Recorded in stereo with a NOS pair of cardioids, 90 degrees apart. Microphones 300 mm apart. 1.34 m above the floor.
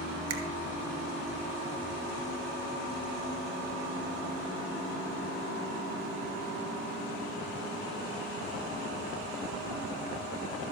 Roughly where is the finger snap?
Ahead right.